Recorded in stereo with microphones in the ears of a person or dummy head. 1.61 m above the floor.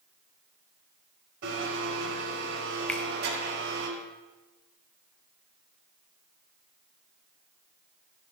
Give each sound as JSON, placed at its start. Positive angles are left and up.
{"t": 1.4, "sound": "a blender", "side_deg": -50, "distance_m": 3.5}
{"t": 2.9, "sound": "a finger snap", "side_deg": 10, "distance_m": 0.5}